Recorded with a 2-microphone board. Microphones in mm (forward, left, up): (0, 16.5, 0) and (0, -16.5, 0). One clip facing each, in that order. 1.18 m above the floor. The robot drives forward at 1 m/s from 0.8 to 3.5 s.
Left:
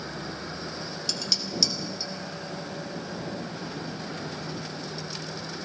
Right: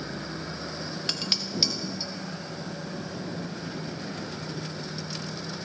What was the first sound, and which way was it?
Dishes clattering, 40° right (ahead or behind).